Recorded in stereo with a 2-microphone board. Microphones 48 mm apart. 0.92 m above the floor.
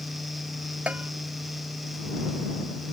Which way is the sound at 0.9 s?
25° right (ahead or behind).